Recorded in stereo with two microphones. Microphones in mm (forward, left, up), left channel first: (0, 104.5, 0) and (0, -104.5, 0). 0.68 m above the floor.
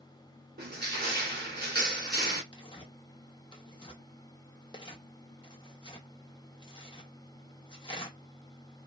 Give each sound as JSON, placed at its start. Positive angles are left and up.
{"t": 0.6, "sound": "crushing", "side_deg": -50, "distance_m": 1.4}
{"t": 2.5, "sound": "tearing paper", "side_deg": 25, "distance_m": 0.8}